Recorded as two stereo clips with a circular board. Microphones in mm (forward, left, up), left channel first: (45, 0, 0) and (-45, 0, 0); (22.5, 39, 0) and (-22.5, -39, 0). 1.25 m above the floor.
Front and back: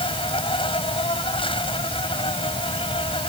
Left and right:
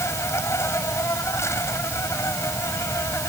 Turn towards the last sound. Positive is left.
turn(degrees=0)